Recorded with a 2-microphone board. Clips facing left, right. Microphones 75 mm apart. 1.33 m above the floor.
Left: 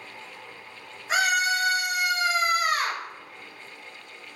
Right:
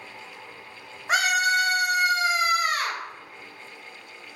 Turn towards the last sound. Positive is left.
turn(degrees=20)  # may be behind; listen again after turning